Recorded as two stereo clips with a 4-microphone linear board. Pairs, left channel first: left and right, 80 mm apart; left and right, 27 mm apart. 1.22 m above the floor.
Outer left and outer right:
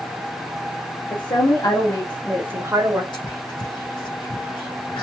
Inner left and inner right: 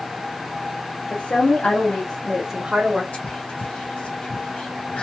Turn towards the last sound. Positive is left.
turn(degrees=60)  # may be behind; listen again after turning